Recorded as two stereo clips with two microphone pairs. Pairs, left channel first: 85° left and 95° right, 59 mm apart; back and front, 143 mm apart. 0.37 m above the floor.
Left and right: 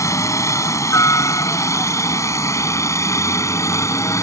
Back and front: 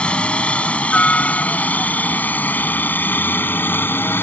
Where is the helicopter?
95° left; by 4.2 s 105° left.